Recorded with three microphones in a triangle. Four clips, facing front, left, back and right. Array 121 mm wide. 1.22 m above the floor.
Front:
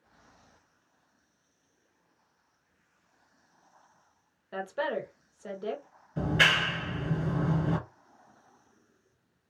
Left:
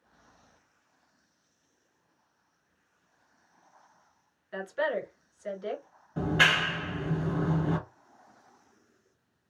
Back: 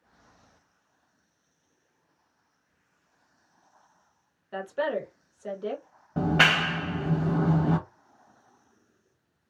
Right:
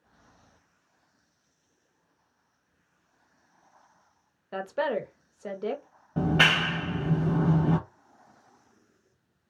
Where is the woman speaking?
90° right, 0.9 m.